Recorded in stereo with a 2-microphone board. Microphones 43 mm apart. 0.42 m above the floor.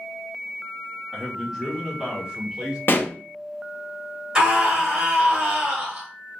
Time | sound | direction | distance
1.1 | a man speaking | 10° right (ahead or behind) | 1.1 m
2.9 | a pop | 50° left (ahead or behind) | 0.6 m
4.3 | a scream | 25° right (ahead or behind) | 1.2 m